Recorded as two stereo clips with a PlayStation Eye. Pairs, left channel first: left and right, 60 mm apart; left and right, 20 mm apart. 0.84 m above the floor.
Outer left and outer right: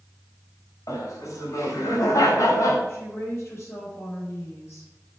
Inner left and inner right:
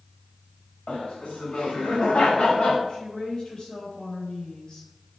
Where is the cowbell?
I don't hear a cowbell.